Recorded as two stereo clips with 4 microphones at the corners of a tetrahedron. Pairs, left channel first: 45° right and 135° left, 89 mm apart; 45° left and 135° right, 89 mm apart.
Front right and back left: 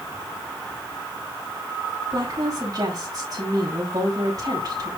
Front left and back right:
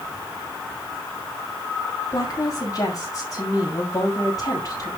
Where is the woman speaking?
90° left, 7 m.